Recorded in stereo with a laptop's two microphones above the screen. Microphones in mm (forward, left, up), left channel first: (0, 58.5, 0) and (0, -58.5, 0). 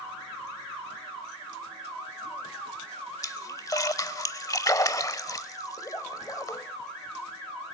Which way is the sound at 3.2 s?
30° left (ahead or behind).